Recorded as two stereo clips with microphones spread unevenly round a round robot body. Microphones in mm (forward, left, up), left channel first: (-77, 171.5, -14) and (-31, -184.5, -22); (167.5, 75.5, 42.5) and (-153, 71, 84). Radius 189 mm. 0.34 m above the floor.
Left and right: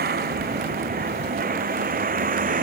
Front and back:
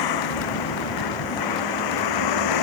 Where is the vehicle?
15° right; by 2.6 s 10° right.